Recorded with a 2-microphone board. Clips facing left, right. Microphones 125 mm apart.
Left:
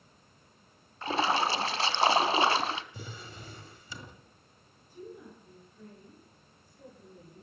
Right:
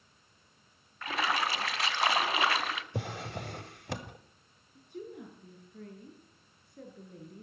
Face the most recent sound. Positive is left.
turn(degrees=-75)  # may be behind; listen again after turning